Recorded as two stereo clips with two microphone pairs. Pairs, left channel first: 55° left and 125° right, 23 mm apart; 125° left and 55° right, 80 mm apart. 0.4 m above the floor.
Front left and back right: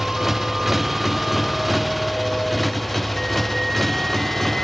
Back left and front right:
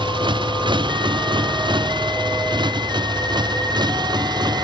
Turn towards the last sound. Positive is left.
turn(degrees=-30)